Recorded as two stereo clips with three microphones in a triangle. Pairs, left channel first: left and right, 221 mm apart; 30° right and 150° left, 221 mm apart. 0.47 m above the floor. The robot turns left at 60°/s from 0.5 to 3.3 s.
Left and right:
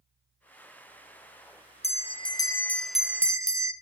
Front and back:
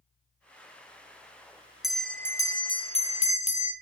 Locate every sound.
1.8 s a bell: 65° left, 0.6 m; by 3.7 s 25° right, 0.6 m